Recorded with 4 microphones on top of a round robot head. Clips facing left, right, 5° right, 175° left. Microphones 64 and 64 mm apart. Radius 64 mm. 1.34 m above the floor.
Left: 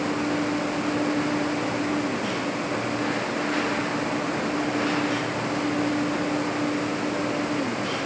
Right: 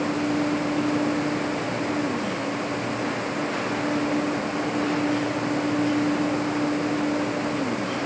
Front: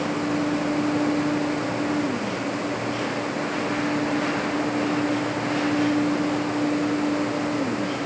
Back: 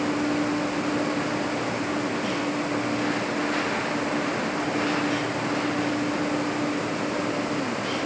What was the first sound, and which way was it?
Only background noise.